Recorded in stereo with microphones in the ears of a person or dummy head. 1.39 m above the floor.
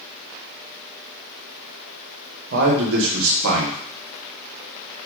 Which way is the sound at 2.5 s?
60° right (ahead or behind).